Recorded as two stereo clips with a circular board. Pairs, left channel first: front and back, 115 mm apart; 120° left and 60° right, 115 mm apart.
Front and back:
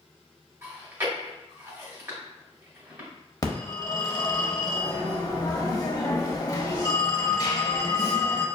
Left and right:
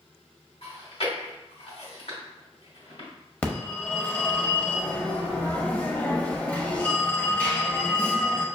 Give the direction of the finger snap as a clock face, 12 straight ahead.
No finger snap in this recording.